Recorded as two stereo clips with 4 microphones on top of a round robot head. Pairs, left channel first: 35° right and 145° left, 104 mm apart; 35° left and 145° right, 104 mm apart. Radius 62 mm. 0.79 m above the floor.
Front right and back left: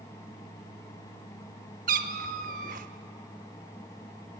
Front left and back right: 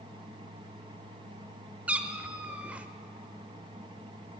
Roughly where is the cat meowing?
Behind left.